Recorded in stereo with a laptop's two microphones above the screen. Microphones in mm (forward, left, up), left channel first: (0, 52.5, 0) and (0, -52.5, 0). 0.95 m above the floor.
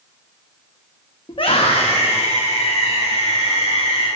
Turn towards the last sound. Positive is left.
turn(degrees=80)